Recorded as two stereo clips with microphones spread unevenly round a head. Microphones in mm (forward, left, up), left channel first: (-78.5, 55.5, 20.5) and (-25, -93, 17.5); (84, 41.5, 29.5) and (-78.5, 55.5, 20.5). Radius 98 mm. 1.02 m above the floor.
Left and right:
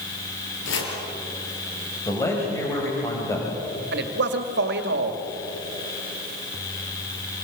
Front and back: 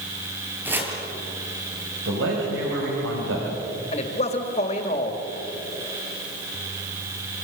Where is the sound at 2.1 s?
Straight behind, 5.5 m.